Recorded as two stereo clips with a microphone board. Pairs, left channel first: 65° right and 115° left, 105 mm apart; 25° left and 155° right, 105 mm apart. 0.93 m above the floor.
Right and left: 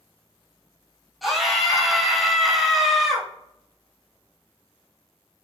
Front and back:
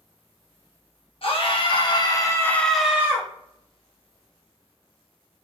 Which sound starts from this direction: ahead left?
A scream, at 1.2 s.